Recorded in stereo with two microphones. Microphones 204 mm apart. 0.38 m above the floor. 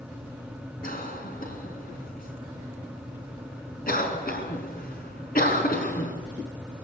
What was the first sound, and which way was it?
A cough, 45° left (ahead or behind).